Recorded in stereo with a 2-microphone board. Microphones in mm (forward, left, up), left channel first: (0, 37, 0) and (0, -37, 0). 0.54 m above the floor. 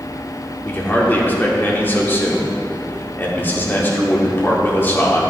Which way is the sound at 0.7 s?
30° left (ahead or behind).